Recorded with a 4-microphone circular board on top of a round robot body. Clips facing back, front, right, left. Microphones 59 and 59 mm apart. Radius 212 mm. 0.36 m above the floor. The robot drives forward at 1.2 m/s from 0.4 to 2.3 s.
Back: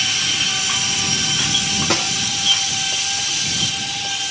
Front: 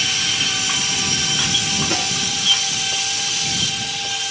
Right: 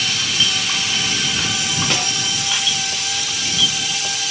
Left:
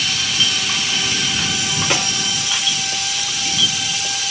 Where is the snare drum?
170° left, 2.5 m.